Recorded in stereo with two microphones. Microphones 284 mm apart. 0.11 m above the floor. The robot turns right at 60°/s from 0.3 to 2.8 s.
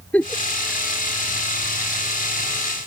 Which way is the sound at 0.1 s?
5° left (ahead or behind).